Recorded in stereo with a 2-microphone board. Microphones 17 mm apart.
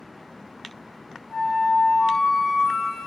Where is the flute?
65° left (ahead or behind), 1.1 m.